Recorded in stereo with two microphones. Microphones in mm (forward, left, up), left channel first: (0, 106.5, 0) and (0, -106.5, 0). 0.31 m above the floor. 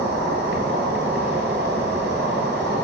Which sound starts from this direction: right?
An insect, at 0.0 s.